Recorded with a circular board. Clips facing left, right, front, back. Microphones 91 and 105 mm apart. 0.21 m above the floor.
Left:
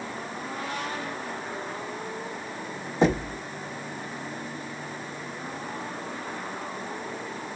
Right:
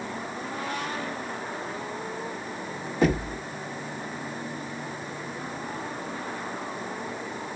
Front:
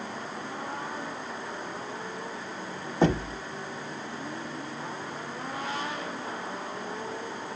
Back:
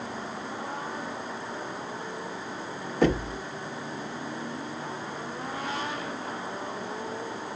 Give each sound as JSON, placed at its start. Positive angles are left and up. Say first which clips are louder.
{"t": 3.0, "sound": "knocking", "louder": "left 1 dB, back 1 dB", "azimuth_deg": 40, "distance_m": 1.0}